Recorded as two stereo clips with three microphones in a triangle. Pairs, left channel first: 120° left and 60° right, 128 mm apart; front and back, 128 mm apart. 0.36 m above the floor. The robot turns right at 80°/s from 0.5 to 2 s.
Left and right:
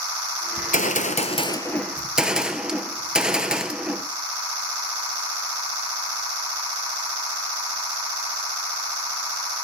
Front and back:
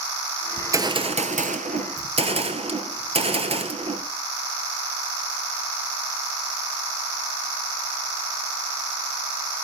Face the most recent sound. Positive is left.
turn(degrees=-145)